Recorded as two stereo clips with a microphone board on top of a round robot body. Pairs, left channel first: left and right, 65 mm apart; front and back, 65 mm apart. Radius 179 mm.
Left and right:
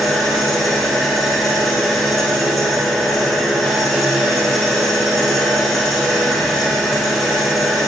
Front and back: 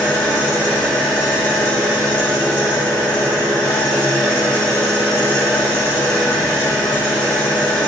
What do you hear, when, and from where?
0.0 s an engine running: straight ahead, 1.9 m